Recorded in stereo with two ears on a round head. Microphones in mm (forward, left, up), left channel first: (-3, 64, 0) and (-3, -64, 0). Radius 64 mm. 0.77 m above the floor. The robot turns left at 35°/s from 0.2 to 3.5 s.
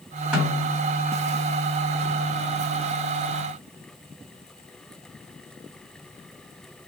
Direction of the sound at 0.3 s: 10° right (ahead or behind).